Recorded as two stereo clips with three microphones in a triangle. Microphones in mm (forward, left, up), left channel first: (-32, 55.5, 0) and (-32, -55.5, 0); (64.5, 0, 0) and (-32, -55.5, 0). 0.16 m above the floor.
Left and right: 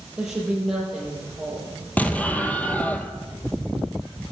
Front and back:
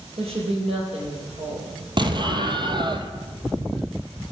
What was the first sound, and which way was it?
A woman speaking, 175° right.